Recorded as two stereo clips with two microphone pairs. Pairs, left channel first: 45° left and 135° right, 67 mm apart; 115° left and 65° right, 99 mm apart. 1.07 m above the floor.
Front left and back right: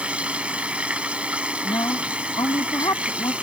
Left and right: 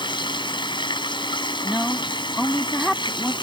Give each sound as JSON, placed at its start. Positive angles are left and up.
{"t": 0.0, "sound": "running water", "azimuth_deg": 150}
{"t": 1.6, "sound": "a woman speaking", "azimuth_deg": 30}